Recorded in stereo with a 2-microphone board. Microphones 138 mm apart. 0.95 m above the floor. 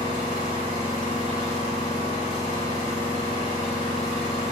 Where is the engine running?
85° right, 1.9 m.